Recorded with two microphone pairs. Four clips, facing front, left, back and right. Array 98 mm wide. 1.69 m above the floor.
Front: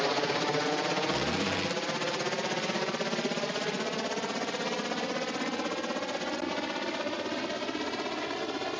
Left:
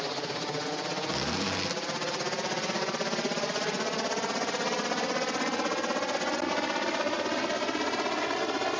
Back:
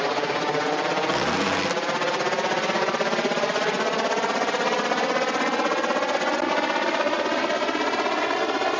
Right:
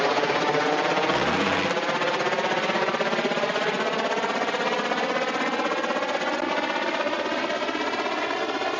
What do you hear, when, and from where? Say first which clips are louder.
0.0 s a helicopter: right 11 dB, back 5 dB; 120° right; by 8.8 s 170° right
1.1 s a zipper: right 9 dB, back 7 dB; 150° right